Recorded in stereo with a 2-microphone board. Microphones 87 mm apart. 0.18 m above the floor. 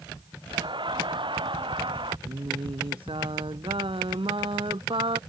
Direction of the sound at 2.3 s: 80° right.